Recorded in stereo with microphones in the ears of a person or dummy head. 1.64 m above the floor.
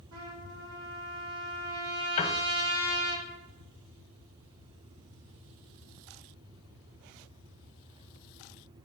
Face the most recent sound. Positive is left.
turn(degrees=35)  # may be behind; listen again after turning